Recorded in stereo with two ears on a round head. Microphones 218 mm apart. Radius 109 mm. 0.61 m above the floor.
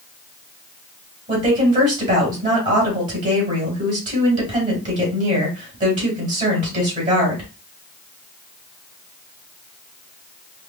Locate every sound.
1.3 s a woman speaking: 30° right (ahead or behind), 2.5 m